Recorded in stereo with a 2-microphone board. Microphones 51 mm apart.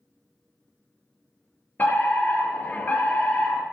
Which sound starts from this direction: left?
A fire alarm, at 1.8 s.